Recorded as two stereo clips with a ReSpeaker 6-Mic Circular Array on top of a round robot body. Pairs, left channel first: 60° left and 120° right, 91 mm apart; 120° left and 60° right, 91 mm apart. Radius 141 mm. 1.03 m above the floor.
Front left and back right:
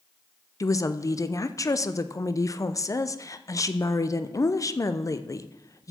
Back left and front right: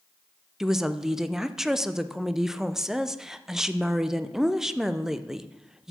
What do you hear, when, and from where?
0.6 s a woman speaking: 20° left, 0.7 m